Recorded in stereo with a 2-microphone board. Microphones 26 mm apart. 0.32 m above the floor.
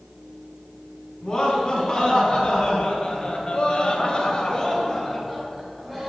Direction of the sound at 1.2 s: 35° left (ahead or behind).